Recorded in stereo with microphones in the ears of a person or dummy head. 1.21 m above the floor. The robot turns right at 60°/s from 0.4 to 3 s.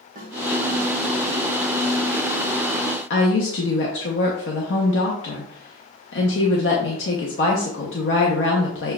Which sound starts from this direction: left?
A woman speaking, at 3.1 s.